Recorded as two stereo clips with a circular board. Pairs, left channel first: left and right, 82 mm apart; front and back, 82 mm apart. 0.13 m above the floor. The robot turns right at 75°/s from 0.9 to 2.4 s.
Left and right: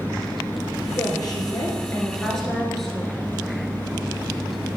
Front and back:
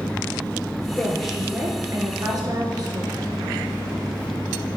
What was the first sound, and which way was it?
A woman speaking, 65° left.